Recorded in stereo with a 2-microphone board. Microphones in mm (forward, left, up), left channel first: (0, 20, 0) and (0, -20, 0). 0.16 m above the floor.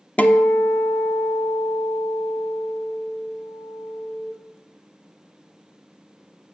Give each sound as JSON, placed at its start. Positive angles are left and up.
{"t": 0.2, "sound": "a guitar", "side_deg": 35, "distance_m": 0.7}